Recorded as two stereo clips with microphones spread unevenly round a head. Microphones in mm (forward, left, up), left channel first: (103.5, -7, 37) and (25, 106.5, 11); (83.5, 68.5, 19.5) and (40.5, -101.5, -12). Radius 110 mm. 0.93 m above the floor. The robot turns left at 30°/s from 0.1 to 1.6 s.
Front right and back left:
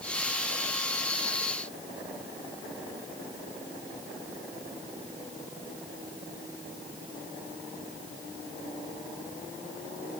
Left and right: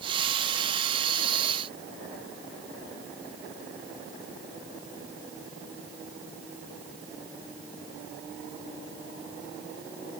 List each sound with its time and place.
Only background noise.